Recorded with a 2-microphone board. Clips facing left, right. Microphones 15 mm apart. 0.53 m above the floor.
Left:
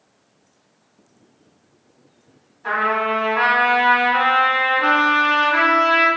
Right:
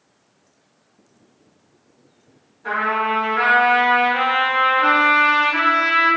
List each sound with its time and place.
2.6 s a trumpet: 40° left (ahead or behind), 1.5 m